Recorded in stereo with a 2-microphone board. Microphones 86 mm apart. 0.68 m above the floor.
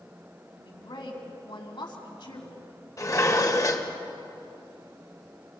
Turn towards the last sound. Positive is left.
turn(degrees=40)  # may be behind; listen again after turning